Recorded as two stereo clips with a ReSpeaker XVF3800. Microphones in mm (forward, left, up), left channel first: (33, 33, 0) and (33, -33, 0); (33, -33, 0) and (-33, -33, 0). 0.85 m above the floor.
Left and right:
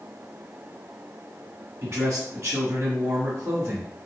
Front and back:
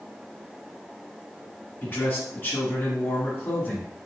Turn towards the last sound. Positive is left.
turn(degrees=-55)